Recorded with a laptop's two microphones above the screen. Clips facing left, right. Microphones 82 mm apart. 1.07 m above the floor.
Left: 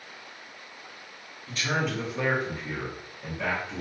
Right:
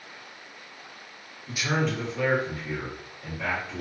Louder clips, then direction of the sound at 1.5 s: Right 2 dB; 15° right (ahead or behind).